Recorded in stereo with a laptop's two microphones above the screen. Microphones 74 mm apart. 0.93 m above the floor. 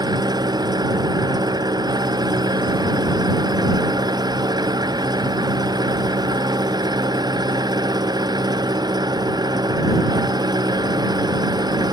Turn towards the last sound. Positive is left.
turn(degrees=-70)  # may be behind; listen again after turning